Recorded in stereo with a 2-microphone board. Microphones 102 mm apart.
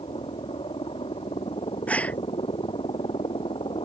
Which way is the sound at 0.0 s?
65° left (ahead or behind).